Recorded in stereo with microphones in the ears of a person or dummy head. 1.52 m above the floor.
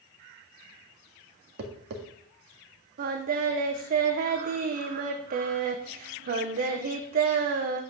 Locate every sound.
1.6 s tapping: 70° right (ahead or behind), 1.9 m
3.0 s singing: 50° right (ahead or behind), 1.1 m